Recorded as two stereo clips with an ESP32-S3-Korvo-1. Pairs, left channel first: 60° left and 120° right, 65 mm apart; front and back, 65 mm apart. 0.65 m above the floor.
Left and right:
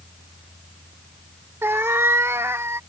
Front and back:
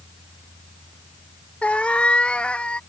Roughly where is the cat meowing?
Right.